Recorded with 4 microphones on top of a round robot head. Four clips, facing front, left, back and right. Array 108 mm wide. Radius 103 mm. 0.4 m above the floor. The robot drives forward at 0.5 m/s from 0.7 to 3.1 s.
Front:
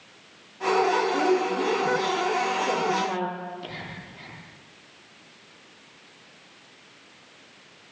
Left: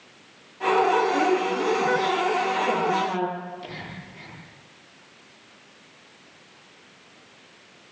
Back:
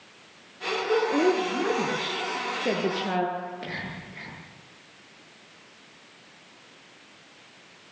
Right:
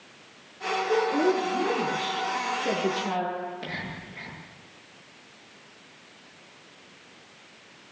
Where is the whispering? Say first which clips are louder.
Right 2 dB, back 1 dB; 140° right, 10 m.